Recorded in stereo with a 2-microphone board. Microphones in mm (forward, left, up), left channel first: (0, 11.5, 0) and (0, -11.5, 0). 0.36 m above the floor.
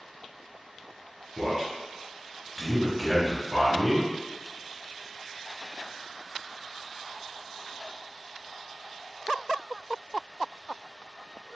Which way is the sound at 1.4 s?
Centre (ahead or behind).